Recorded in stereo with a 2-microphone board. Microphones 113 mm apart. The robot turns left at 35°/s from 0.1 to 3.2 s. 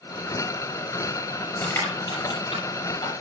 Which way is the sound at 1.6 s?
20° left (ahead or behind).